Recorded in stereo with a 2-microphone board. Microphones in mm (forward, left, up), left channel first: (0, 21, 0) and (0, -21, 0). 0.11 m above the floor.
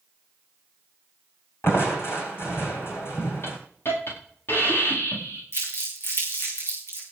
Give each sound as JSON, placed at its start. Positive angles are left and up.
{"t": 1.6, "sound": "crushing", "side_deg": 75, "distance_m": 3.0}
{"t": 3.4, "sound": "a hiss", "side_deg": 65, "distance_m": 9.5}
{"t": 5.5, "sound": "crumpling", "side_deg": 65, "distance_m": 7.0}